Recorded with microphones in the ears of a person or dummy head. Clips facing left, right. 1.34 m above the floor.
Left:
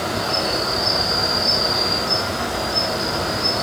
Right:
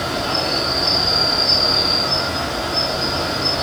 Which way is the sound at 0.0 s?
65° left (ahead or behind).